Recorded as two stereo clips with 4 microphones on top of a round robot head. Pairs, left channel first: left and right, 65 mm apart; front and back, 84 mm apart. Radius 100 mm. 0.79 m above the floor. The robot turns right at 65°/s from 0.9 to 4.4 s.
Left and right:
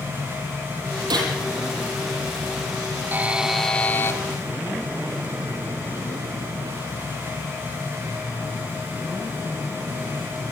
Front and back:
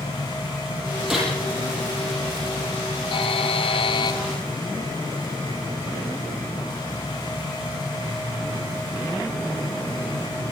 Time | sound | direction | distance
1.1 | a gunshot | 95° right | 9.5 m
3.1 | a buzzer | 30° right | 2.5 m